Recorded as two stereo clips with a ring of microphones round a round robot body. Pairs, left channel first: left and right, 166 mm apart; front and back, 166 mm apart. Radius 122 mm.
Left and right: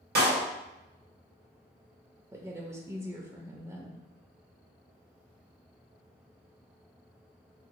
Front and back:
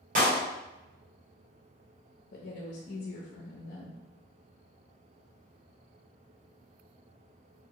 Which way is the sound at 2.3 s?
20° right.